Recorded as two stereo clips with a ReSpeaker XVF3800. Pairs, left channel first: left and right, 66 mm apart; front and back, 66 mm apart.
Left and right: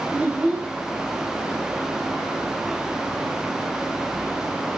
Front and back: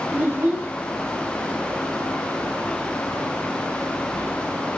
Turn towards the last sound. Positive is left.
turn(degrees=-140)